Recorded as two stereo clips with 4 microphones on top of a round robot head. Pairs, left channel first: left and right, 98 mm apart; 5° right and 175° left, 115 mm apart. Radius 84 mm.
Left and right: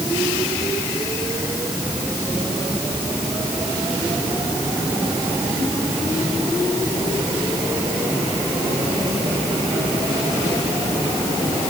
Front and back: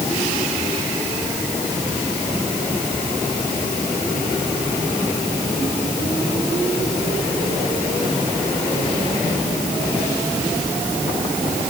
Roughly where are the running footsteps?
I don't hear running footsteps.